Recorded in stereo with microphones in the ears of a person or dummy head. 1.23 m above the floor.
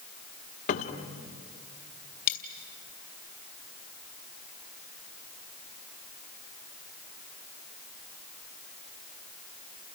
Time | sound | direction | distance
0.7 | a cupboard door | 35° left (ahead or behind) | 1.4 m
2.3 | a dropped coin | 50° left (ahead or behind) | 1.8 m